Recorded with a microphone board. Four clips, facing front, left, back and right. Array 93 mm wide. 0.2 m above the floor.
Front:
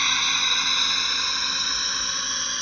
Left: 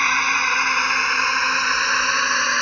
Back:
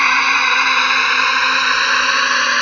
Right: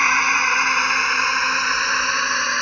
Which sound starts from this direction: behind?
A drone, at 0.0 s.